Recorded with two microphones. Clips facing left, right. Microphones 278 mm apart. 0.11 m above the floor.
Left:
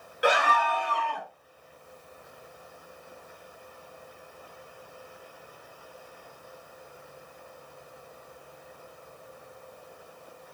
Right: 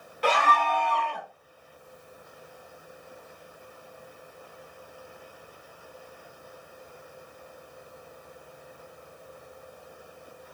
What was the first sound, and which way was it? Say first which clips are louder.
A scream: left 1 dB; 15° left (ahead or behind).